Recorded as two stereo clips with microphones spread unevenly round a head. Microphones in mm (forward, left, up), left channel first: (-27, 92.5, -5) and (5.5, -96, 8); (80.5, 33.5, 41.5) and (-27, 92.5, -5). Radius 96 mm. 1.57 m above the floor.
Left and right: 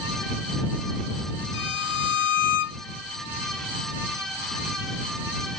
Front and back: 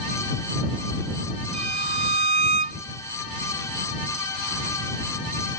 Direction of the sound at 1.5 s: 125° left.